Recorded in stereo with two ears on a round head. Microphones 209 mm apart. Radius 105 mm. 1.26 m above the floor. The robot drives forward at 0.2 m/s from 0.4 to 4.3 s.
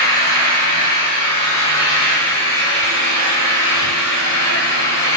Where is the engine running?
75° left (ahead or behind), 3 m.